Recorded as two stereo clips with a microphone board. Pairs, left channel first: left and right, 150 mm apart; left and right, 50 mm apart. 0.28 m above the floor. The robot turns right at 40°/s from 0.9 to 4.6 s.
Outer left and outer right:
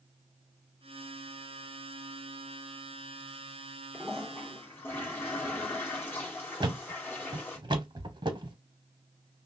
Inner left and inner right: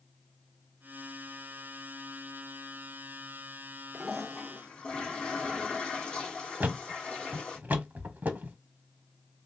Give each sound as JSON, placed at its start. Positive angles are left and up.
{"t": 3.9, "sound": "a toilet flushing", "side_deg": -10, "distance_m": 2.0}
{"t": 6.6, "sound": "a thud", "side_deg": -30, "distance_m": 0.8}